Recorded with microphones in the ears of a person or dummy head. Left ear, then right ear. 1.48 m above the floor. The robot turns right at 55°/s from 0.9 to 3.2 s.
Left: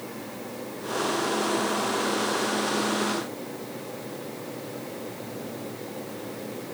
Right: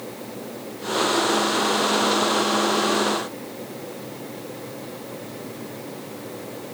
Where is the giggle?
No giggle in this recording.